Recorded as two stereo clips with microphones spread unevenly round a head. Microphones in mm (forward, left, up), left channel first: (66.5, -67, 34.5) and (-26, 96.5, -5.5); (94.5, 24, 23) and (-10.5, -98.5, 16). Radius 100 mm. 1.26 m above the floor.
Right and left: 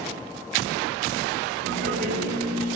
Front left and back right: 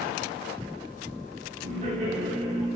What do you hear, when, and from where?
1.6 s laughter: 175° left, 3 m